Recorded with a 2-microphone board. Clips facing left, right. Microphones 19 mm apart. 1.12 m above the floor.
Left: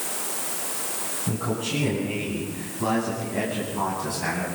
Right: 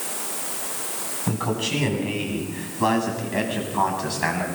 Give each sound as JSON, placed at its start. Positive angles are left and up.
{"t": 1.3, "sound": "a man speaking", "side_deg": -50, "distance_m": 9.0}